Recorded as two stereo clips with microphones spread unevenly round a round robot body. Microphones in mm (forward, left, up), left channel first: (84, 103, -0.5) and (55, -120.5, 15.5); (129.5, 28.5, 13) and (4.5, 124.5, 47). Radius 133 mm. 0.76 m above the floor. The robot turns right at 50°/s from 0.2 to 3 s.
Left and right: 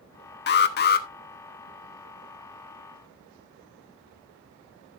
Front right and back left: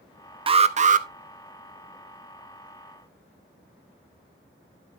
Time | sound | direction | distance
0.5 | an alarm | 85° left | 0.9 m